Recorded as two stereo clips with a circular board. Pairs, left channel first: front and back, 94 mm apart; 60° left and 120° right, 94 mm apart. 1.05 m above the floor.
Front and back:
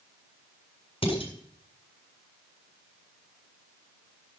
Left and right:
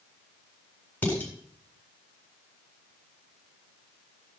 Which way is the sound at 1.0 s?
10° right.